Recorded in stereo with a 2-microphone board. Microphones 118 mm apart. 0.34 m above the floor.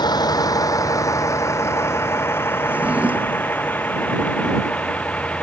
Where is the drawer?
10° right (ahead or behind).